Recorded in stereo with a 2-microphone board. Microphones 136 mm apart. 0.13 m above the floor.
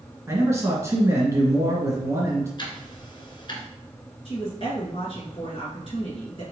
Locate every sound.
0.3 s a man speaking: 20° right (ahead or behind), 1.6 m
2.6 s ticking: 40° left (ahead or behind), 1.0 m
4.2 s a woman speaking: 45° left (ahead or behind), 1.6 m